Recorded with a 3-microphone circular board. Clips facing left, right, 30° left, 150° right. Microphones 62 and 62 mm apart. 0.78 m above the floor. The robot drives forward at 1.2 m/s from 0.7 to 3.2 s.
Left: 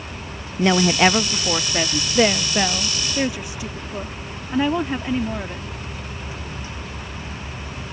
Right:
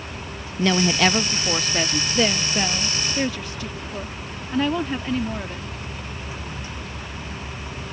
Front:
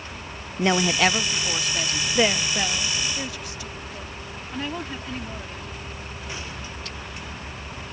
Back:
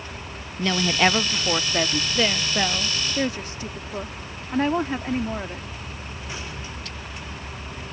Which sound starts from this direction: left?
A woman speaking, at 2.1 s.